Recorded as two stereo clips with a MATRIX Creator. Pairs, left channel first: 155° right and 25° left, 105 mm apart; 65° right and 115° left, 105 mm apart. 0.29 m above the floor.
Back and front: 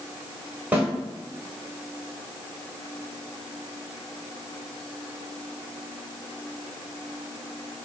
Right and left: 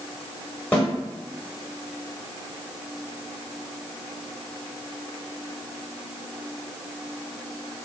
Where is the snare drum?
20° right, 1.0 m.